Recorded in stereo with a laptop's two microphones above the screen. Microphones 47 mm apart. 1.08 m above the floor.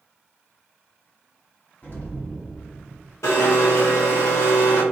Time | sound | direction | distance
1.8 | an explosion | 40° left (ahead or behind) | 1.3 m
3.2 | a blender | 75° left (ahead or behind) | 1.0 m